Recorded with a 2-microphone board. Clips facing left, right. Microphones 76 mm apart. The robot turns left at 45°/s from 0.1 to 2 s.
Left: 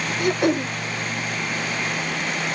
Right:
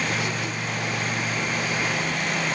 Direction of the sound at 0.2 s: 50° left (ahead or behind).